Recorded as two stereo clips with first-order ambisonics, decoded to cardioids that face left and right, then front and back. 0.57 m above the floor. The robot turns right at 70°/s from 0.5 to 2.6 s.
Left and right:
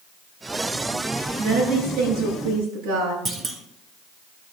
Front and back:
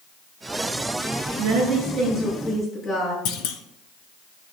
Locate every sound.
1.4 s a woman speaking: 145° right, 6.5 m; by 3.1 s 60° right, 6.5 m
3.2 s a clunk: 20° right, 1.4 m